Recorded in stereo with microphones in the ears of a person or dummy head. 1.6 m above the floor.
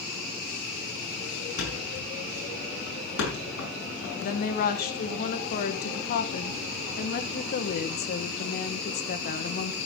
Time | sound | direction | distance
1.6 | a thud | 70° left (ahead or behind) | 6.5 m
4.2 | a woman speaking | 50° left (ahead or behind) | 1.5 m